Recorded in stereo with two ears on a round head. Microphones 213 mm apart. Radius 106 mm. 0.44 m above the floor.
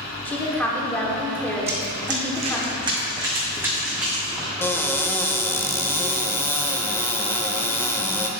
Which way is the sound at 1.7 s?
45° right (ahead or behind).